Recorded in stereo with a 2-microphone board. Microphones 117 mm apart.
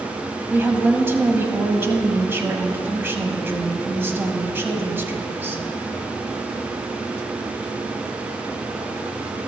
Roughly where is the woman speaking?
Centre.